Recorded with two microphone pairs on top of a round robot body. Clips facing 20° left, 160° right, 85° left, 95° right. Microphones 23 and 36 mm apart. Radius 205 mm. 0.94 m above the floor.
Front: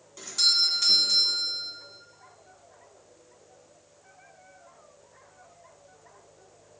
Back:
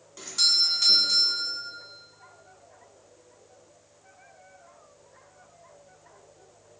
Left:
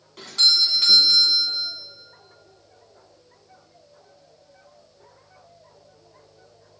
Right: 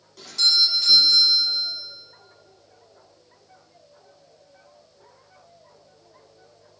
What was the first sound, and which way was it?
A doorbell, 125° left.